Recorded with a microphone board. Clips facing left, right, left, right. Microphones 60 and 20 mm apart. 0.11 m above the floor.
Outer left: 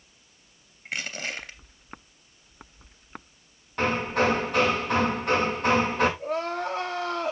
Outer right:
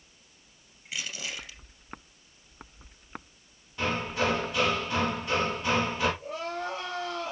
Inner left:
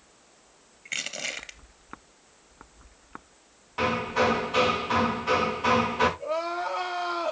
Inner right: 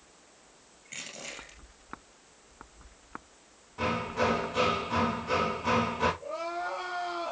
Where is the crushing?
55° left (ahead or behind), 2 m.